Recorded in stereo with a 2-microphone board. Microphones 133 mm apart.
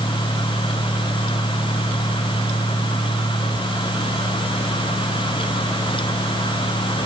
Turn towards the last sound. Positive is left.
No sound to turn to.